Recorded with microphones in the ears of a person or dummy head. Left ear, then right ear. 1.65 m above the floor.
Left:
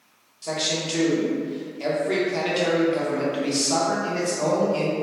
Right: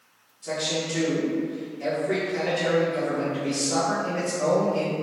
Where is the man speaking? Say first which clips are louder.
Left 2 dB; 35° left (ahead or behind), 1.1 m.